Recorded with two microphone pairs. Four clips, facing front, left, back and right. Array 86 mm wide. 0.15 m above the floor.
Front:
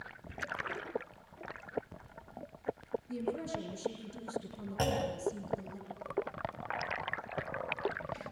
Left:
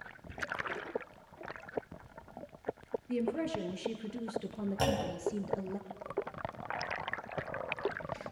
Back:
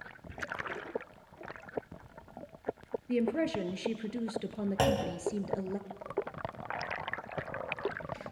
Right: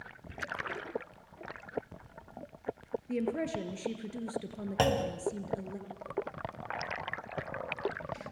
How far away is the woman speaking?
About 3 m.